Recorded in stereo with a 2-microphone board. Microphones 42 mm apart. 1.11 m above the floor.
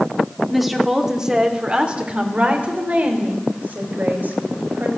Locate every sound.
0.5 s a woman speaking: centre (ahead or behind), 3 m; by 4.9 s 50° right (ahead or behind), 6 m